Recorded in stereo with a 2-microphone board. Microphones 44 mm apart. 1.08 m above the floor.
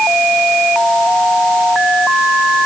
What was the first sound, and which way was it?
Only background noise.